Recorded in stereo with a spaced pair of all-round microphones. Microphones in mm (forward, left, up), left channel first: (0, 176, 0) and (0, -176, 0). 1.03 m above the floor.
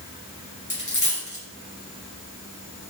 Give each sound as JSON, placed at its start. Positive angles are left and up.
{"t": 0.7, "sound": "a dropped coin", "side_deg": 55, "distance_m": 2.5}